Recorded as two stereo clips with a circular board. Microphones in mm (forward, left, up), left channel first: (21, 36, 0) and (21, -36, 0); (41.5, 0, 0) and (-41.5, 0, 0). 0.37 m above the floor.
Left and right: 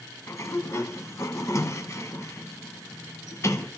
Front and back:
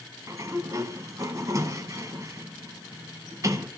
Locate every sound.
0.3 s a sliding door: 135° left, 0.8 m